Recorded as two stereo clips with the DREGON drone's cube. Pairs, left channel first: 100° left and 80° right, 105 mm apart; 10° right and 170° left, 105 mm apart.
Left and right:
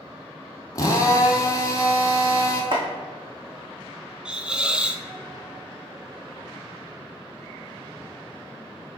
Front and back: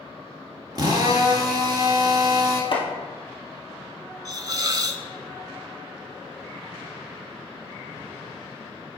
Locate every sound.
0.8 s a drill: 140° left, 1.4 m
2.7 s chopping: 45° right, 2 m
4.2 s a hiss: 155° right, 0.5 m